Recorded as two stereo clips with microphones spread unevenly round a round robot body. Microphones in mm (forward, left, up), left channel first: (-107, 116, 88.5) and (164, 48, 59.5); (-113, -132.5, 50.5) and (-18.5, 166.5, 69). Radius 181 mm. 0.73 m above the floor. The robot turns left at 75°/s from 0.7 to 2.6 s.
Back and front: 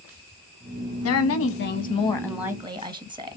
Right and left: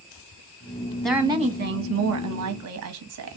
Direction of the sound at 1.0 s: 170° left.